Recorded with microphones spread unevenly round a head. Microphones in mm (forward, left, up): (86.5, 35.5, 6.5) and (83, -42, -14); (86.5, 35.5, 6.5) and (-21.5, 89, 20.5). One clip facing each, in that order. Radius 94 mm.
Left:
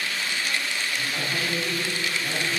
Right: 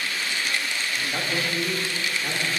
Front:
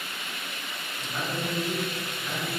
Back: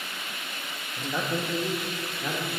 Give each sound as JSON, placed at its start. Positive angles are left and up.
{"t": 1.0, "sound": "a man speaking", "azimuth_deg": -160, "distance_m": 1.4}